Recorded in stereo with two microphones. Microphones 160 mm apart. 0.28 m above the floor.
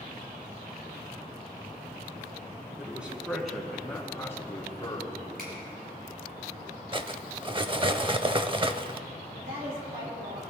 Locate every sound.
2.8 s a man speaking: 10° right (ahead or behind), 2.5 m; by 5.2 s 30° left (ahead or behind), 3 m
5.4 s a finger snap: 65° right (ahead or behind), 5.5 m
6.9 s cutlery clinking: 30° right (ahead or behind), 0.5 m
9.3 s a woman speaking: 70° right (ahead or behind), 5 m